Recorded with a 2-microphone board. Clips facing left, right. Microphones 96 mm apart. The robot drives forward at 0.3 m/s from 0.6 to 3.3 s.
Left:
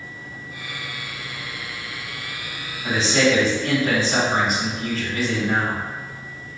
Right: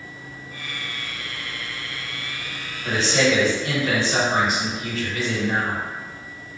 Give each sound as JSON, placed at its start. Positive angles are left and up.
{"t": 2.8, "sound": "a man speaking", "side_deg": 45, "distance_m": 1.9}